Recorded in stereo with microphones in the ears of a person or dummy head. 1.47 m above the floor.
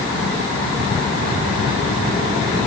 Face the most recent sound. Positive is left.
No sound to turn to.